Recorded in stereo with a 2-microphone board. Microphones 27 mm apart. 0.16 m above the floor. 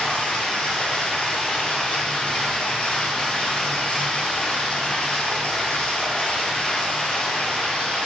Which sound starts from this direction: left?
Running water, at 0.0 s.